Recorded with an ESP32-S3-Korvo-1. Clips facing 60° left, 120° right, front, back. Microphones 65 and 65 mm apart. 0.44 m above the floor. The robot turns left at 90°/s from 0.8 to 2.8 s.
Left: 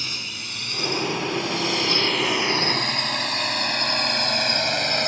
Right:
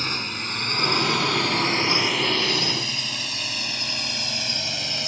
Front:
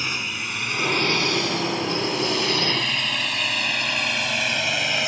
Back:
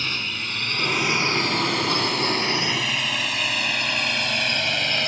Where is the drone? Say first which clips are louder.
Right 5 dB, front 1 dB; 75° right; by 5.1 s 80° left.